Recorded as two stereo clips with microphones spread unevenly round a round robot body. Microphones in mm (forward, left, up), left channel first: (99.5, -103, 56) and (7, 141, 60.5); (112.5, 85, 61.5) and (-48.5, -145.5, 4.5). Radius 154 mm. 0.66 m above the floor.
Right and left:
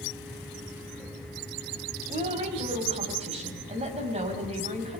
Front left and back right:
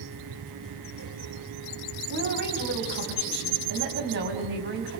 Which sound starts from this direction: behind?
A woman speaking, at 2.1 s.